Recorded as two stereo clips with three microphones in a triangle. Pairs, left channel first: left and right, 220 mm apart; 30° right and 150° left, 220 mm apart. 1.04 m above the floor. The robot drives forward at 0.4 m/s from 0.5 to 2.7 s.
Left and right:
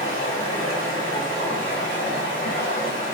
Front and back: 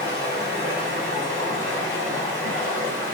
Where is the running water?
110° left, 1.4 m; by 3.1 s 135° left, 1.9 m.